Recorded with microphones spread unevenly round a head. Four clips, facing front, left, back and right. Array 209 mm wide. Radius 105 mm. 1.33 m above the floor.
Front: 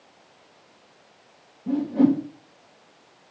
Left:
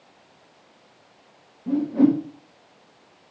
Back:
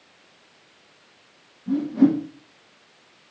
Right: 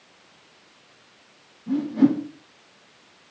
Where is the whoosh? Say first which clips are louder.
Left 1 dB, back 1 dB; 45° left, 3 m.